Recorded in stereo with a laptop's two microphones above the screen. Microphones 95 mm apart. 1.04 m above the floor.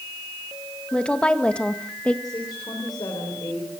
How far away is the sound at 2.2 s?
About 3.5 m.